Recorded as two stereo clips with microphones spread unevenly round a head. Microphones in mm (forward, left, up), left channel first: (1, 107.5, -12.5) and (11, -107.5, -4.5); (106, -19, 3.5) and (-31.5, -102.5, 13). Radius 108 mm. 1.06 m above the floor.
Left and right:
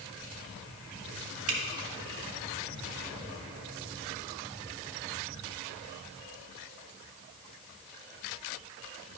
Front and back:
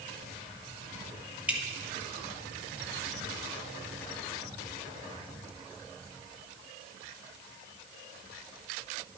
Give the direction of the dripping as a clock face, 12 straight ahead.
2 o'clock.